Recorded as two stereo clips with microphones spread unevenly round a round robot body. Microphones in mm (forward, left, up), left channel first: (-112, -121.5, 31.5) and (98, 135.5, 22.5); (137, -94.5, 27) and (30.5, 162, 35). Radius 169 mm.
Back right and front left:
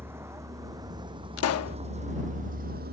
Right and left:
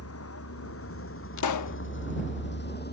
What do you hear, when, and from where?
0.0 s a vehicle: 35° right; by 2.9 s 10° right
1.4 s a pop: 85° right